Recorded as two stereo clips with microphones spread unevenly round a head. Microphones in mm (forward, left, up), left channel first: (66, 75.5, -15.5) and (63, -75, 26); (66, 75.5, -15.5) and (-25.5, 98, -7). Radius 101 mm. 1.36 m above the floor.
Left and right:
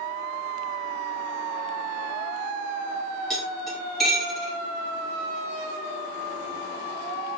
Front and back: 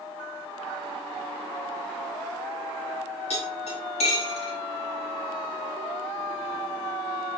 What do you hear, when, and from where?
3.3 s cutlery clinking: 5° right, 4 m